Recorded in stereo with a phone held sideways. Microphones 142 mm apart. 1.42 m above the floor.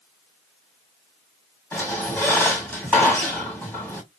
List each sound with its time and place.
1.7 s a squeak: 15° left (ahead or behind), 2.5 m